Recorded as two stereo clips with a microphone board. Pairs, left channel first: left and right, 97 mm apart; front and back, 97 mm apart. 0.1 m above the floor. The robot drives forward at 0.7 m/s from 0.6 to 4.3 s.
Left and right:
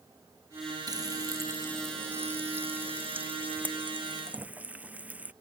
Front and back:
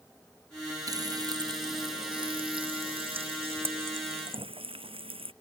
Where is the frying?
135° right; by 5.3 s 165° right.